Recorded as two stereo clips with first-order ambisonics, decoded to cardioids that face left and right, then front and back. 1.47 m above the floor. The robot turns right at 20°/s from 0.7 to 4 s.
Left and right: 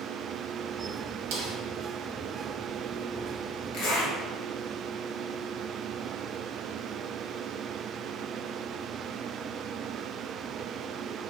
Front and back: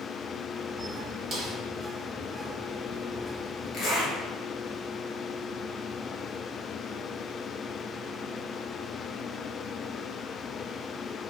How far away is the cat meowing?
I don't hear a cat meowing.